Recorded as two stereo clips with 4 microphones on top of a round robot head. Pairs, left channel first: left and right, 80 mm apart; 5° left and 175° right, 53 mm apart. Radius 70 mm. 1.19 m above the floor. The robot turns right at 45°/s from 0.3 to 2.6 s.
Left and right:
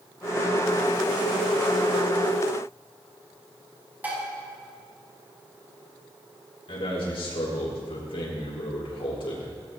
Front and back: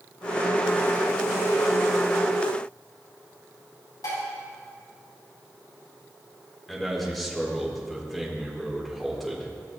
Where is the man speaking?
95° left, 4.5 m.